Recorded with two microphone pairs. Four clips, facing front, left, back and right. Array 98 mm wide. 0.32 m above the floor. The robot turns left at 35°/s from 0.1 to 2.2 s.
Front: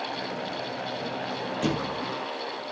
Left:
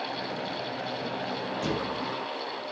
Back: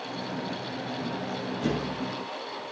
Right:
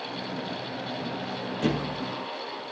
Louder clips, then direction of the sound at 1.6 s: Right 5 dB, front 1 dB; 50° right.